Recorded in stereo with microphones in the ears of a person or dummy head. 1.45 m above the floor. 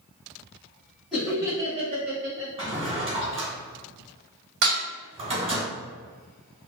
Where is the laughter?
5° right (ahead or behind), 1.3 m; by 2.5 s 60° right (ahead or behind), 1.2 m.